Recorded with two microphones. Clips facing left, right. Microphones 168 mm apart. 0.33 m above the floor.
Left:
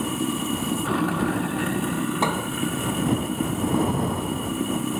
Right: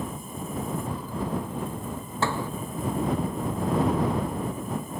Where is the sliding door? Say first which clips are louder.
Left 3 dB; 20° left (ahead or behind).